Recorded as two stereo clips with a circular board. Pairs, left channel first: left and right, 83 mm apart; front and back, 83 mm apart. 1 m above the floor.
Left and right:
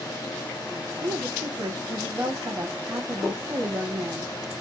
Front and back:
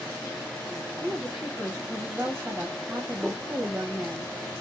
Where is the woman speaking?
115° right, 0.9 m.